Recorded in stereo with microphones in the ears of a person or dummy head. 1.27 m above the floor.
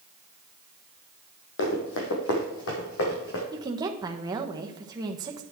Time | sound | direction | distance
1.6 | running footsteps | 70° left (ahead or behind) | 3 m
3.5 | a woman speaking | 20° right (ahead or behind) | 1.2 m